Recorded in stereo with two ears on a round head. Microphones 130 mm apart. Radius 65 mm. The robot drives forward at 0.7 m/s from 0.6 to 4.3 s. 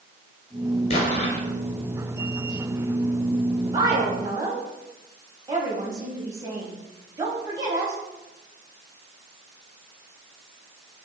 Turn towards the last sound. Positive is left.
turn(degrees=-25)  # may be behind; listen again after turning